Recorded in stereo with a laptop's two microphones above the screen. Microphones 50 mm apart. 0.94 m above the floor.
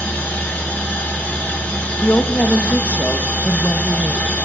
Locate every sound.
0.0 s a machine running: 35° left (ahead or behind), 2.5 m
2.0 s a woman speaking: 40° left (ahead or behind), 1.0 m